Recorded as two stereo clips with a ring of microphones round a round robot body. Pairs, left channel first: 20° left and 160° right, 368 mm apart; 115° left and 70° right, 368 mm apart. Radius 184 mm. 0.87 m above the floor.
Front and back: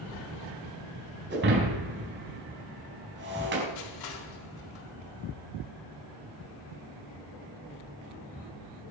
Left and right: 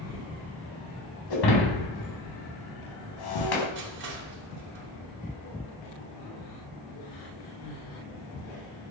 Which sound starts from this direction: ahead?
Crushing, at 3.8 s.